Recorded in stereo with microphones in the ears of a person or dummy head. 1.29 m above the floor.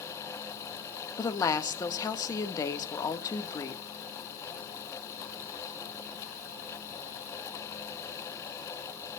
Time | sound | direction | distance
1.2 | a woman speaking | 25° left (ahead or behind) | 1.6 m